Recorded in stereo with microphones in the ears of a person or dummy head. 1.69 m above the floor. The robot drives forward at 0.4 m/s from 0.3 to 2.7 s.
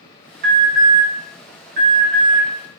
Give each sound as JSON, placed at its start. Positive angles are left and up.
{"t": 0.4, "sound": "an alarm", "side_deg": -50, "distance_m": 2.0}